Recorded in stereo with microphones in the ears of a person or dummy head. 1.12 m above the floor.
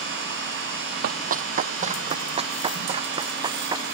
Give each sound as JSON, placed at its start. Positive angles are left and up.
{"t": 1.0, "sound": "running footsteps", "side_deg": -50}